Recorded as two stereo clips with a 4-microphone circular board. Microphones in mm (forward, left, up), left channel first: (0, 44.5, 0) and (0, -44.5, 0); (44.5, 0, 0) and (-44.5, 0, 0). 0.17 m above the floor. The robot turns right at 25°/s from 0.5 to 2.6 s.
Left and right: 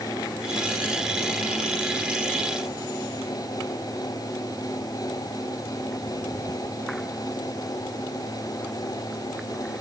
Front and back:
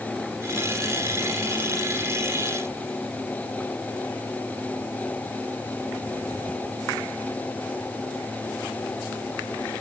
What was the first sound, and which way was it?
Only background noise.